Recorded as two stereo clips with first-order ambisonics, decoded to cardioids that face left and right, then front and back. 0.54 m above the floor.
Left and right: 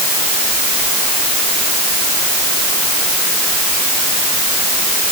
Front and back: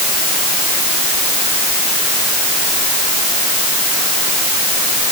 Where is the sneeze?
I don't hear a sneeze.